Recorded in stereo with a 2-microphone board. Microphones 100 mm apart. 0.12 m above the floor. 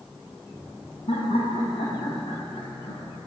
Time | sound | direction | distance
1.1 | laughter | 75° left (ahead or behind) | 6.5 m